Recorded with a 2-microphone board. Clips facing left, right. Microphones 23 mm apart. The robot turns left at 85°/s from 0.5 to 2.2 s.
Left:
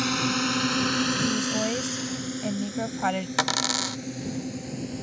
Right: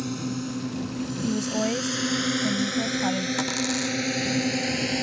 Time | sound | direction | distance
0.0 | a drone | 50° left (ahead or behind) | ?
1.2 | a woman speaking | 145° right | ?
3.4 | a dropped coin | 35° left (ahead or behind) | ?